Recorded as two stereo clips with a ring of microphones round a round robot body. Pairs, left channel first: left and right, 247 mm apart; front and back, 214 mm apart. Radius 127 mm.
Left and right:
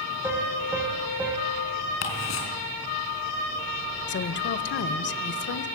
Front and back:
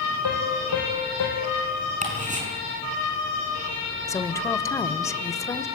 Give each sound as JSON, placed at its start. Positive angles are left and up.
{"t": 0.2, "sound": "a piano", "azimuth_deg": -10, "distance_m": 5.0}
{"t": 2.0, "sound": "ticking", "azimuth_deg": 125, "distance_m": 4.5}
{"t": 4.1, "sound": "a woman speaking", "azimuth_deg": 70, "distance_m": 1.2}